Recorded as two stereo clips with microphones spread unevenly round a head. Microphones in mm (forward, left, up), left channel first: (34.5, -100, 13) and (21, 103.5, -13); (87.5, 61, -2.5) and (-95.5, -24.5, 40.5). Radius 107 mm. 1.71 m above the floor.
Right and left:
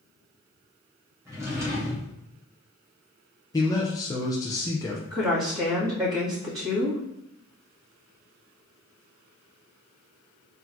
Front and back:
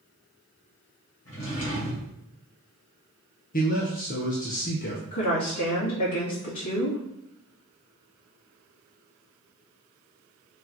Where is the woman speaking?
20° left, 2.5 m.